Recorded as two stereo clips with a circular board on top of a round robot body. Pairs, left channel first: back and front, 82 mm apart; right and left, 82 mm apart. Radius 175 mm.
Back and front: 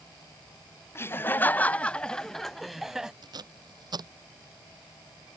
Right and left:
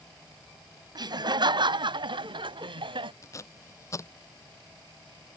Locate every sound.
0.9 s laughter: 120° left; by 3.1 s 85° left
3.2 s tape being pulled: 35° right